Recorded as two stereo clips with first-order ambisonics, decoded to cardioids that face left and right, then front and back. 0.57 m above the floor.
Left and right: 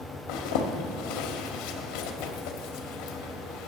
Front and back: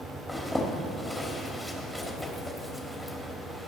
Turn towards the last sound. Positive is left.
turn(degrees=85)